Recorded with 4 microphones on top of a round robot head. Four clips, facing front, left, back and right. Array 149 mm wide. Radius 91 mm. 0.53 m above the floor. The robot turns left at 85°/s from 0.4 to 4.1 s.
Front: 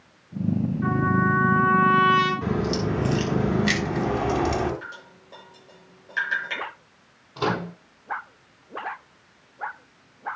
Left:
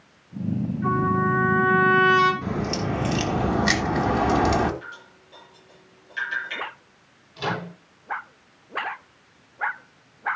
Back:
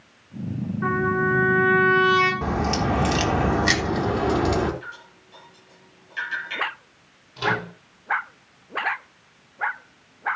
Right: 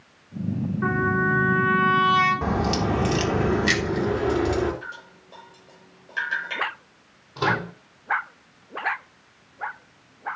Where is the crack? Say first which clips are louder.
Right 3 dB, back 1 dB; 120° right, 3.5 m; by 4.7 s 95° left, 3.5 m.